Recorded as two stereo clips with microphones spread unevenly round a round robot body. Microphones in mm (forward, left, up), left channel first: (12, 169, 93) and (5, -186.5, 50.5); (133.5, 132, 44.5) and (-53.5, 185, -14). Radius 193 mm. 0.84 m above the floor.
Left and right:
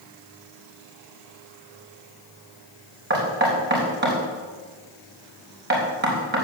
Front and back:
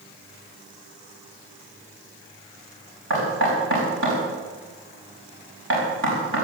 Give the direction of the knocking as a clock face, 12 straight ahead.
5 o'clock.